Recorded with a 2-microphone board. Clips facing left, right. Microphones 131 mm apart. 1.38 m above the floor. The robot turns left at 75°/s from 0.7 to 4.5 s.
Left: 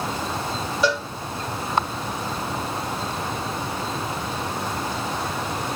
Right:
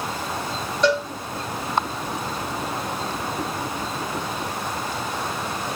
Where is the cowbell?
5° left (ahead or behind), 1.1 m; by 1.1 s 15° left (ahead or behind), 1.1 m.